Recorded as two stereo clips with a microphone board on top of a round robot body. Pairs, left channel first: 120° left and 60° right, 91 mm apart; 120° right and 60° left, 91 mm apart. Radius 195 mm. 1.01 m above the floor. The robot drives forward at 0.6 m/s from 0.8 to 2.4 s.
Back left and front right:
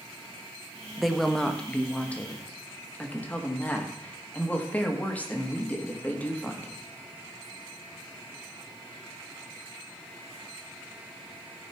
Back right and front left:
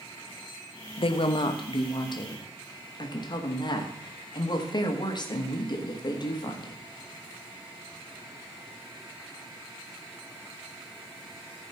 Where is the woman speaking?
145° right, 0.8 m; by 6.8 s 165° right, 1.6 m.